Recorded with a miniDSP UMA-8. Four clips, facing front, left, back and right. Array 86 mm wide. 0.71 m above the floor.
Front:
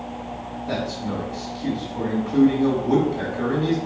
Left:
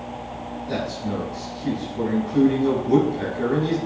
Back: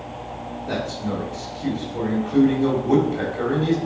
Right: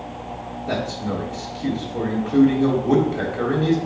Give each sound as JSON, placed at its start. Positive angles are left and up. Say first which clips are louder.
{"t": 0.7, "sound": "a man speaking", "louder": "right 2 dB, even", "azimuth_deg": -115, "distance_m": 3.0}